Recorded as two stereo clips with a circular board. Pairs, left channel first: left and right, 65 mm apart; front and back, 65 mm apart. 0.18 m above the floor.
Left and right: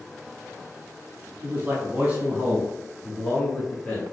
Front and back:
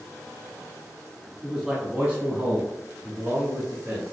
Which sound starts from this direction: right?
A man speaking, at 1.4 s.